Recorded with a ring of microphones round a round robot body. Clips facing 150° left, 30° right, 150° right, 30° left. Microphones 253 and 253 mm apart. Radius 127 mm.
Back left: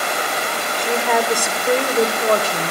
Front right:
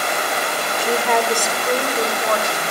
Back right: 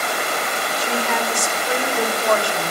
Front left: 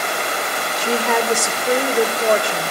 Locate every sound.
0.8 s a woman speaking: 50° left, 2 m; by 2.7 s 100° left, 2.5 m